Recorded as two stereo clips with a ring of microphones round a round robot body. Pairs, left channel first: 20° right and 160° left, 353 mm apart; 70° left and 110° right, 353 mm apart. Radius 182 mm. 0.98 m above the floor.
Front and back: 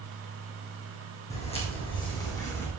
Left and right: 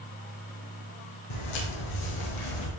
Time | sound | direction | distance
1.3 | footsteps | 50° left | 3.5 m